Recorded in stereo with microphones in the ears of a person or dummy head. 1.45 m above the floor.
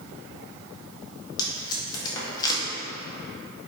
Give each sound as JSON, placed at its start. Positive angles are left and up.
{"t": 1.4, "sound": "tape being pulled", "side_deg": 25, "distance_m": 1.4}